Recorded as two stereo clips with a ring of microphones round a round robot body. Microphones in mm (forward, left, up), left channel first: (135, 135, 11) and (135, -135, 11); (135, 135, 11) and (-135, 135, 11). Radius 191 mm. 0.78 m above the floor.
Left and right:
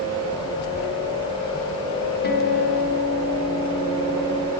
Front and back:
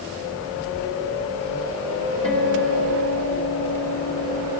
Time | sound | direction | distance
2.2 | a guitar | 35° left | 2 m